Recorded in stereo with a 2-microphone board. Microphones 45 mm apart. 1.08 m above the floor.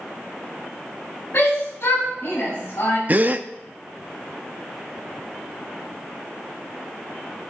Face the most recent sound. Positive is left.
turn(degrees=-35)  # may be behind; listen again after turning